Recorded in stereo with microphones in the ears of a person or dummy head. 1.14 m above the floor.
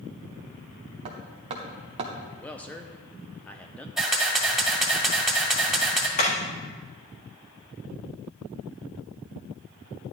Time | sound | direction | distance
1.1 | hammering | 30° right (ahead or behind) | 0.9 m
2.4 | a man speaking | centre (ahead or behind) | 0.6 m
4.0 | a camera shutter | centre (ahead or behind) | 1.8 m
6.2 | hammering | 40° left (ahead or behind) | 1.7 m